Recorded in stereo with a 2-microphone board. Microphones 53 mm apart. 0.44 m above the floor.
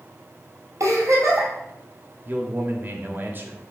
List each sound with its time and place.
0.8 s a giggle: 70° right (ahead or behind), 2.5 m
2.2 s a man speaking: 40° right (ahead or behind), 1.2 m